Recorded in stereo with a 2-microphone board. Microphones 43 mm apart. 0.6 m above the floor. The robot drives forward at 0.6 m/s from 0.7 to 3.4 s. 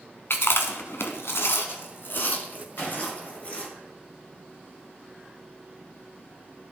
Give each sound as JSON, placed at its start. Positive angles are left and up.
{"t": 0.3, "sound": "chewing", "side_deg": 65, "distance_m": 1.0}
{"t": 2.8, "sound": "a gunshot", "side_deg": 65, "distance_m": 3.5}